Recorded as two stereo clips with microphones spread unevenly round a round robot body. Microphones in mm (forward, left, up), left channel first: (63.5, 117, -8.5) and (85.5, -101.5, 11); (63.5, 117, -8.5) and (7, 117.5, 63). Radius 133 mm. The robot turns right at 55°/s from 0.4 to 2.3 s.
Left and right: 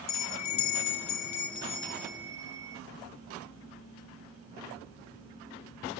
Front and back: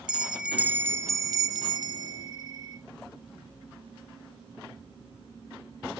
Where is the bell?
95° left, 0.8 m; by 2.8 s 165° right, 0.8 m.